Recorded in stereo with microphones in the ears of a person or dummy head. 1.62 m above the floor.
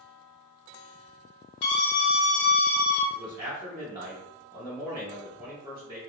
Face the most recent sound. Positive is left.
turn(degrees=-20)  # may be behind; listen again after turning